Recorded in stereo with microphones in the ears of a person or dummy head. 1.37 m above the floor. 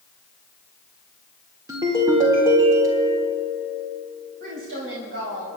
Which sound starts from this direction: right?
A woman speaking, at 4.4 s.